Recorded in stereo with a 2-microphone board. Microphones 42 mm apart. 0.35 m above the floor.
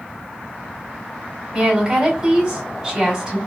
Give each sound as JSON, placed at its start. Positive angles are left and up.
{"t": 1.5, "sound": "a woman speaking", "side_deg": -15, "distance_m": 2.0}